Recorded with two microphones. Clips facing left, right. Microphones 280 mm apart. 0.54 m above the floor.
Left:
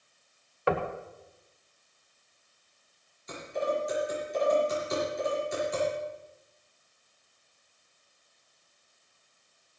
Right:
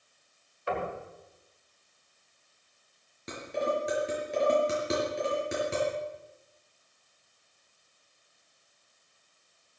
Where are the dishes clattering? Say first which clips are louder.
Even; 75° right (ahead or behind), 5.5 m.